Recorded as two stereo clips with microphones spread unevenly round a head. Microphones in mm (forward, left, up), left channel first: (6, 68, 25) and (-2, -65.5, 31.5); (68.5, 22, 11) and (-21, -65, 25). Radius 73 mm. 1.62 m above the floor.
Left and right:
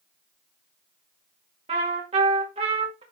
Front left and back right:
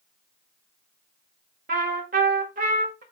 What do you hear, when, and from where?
1.7 s a trumpet: 140° right, 1.7 m